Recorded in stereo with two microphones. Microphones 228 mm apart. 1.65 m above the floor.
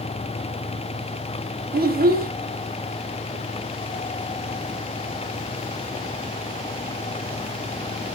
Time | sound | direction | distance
1.7 | a child speaking | 40° right (ahead or behind) | 0.6 m